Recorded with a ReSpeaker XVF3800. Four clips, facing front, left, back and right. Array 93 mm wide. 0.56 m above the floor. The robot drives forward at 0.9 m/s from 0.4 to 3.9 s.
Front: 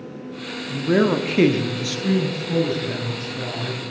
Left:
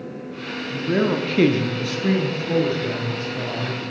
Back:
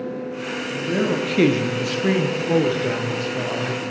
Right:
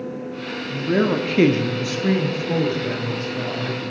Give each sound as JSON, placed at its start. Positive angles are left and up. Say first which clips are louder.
{"t": 0.7, "sound": "a man speaking", "louder": "right 1 dB, front 4 dB", "azimuth_deg": -5, "distance_m": 0.9}